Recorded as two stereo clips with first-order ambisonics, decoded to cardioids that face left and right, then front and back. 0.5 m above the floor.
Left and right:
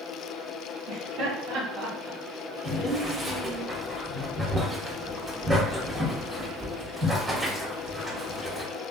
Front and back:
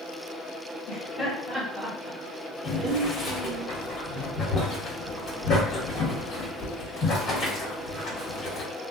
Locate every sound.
0.9 s laughter: 70° right, 1.1 m; by 3.6 s 170° left, 1.2 m
2.6 s boiling: 30° right, 1.3 m